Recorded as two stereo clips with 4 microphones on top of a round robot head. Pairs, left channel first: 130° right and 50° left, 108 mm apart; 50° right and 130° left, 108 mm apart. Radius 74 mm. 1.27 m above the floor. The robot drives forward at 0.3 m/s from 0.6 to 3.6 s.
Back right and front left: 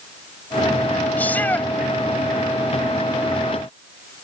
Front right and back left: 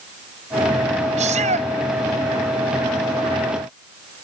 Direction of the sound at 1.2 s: 150° left.